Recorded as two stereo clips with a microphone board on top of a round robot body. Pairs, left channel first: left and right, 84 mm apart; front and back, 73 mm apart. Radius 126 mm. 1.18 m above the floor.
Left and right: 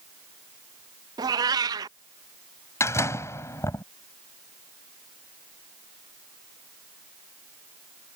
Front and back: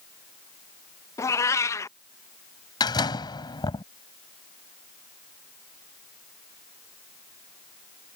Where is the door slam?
30° left.